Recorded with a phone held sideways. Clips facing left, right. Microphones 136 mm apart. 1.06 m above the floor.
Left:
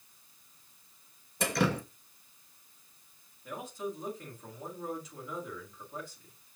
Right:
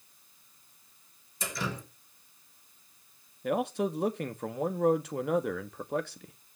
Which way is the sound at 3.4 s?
70° right (ahead or behind).